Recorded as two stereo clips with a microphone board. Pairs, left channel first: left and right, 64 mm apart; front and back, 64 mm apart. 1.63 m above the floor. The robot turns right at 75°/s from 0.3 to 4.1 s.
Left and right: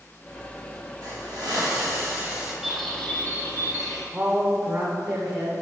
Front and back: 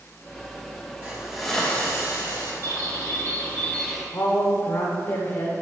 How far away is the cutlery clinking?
No cutlery clinking in this recording.